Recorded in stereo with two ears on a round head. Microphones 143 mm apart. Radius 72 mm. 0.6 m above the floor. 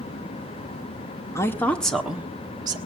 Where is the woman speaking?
20° left (ahead or behind), 1.7 m; by 2.8 s 30° right (ahead or behind), 1.5 m.